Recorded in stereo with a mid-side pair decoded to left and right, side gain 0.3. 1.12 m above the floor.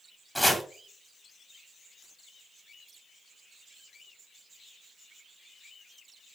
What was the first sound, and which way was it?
Chopping, straight ahead.